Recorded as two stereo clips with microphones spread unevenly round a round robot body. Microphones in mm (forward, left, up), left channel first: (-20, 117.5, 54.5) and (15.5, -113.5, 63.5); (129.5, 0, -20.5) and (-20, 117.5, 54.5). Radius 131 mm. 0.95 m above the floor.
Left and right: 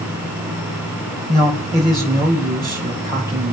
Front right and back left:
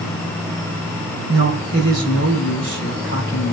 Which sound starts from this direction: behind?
A man speaking, at 1.3 s.